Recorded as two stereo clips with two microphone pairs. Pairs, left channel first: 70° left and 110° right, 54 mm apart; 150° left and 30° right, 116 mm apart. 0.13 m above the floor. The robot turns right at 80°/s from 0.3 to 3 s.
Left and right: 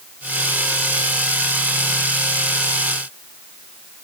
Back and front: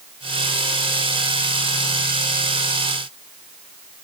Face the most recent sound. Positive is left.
No sound to turn to.